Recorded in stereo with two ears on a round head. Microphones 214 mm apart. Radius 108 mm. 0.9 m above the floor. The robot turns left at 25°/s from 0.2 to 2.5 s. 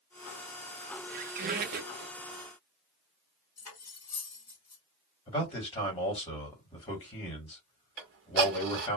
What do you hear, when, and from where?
1.1 s a squeak: 35° right (ahead or behind), 0.6 m
3.6 s cutlery clinking: 15° left (ahead or behind), 1.8 m
5.3 s a man speaking: 20° left (ahead or behind), 1.7 m
8.0 s ticking: 45° right (ahead or behind), 1.1 m